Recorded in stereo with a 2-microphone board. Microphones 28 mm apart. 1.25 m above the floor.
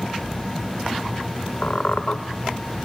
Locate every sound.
1.6 s a squeak: 55° left (ahead or behind), 1.5 m